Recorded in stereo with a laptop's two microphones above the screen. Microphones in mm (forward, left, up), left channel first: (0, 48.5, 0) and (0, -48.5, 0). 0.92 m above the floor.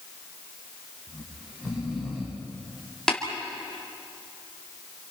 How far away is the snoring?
About 3.5 m.